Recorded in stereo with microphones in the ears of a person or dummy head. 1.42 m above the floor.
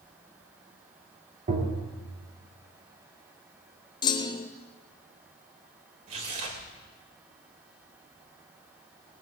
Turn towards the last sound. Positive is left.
turn(degrees=-40)  # may be behind; listen again after turning